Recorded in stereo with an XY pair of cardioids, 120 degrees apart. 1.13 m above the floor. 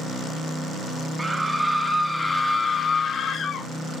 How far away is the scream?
About 1.3 m.